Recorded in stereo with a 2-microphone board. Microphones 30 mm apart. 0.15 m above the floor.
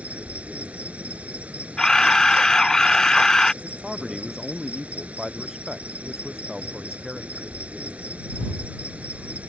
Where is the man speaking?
15° right (ahead or behind).